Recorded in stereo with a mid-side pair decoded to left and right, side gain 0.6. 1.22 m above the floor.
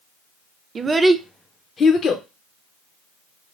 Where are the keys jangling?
No keys jangling in this recording.